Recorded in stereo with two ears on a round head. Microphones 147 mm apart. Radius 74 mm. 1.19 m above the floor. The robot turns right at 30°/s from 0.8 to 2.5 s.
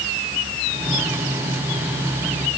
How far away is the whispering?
No whispering in this recording.